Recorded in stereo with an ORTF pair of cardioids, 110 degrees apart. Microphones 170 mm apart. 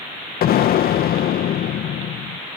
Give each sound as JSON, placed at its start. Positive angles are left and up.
{"t": 0.4, "sound": "an explosion", "azimuth_deg": 60}